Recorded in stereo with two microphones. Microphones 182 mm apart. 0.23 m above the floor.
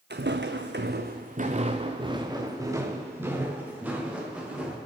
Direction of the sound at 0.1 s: 70° right (ahead or behind).